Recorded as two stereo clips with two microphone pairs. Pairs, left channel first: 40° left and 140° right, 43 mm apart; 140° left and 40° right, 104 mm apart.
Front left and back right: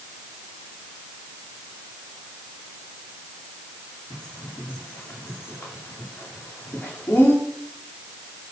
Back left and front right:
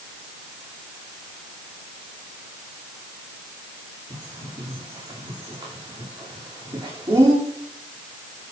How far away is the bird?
About 8.5 m.